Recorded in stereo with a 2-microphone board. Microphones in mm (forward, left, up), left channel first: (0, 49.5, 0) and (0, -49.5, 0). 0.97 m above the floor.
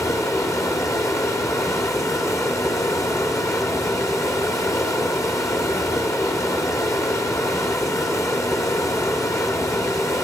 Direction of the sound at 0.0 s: 30° left (ahead or behind).